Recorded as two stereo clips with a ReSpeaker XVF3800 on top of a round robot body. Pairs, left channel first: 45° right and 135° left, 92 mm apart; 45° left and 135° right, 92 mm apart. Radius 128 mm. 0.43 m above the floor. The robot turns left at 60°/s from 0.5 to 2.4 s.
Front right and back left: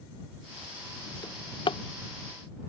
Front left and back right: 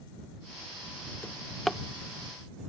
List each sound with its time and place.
1.2 s a drawer: 20° right; by 1.8 s 55° right